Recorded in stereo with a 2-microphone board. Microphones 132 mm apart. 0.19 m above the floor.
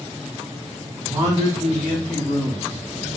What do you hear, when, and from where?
1.0 s a man speaking: 30° right (ahead or behind), 1.4 m; by 2.8 s 10° left (ahead or behind), 1.2 m